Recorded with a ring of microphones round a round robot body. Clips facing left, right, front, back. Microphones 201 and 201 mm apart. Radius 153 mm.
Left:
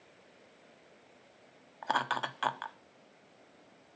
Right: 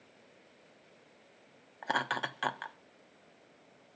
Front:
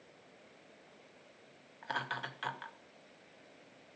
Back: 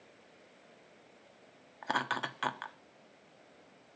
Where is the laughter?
160° right, 1.1 m.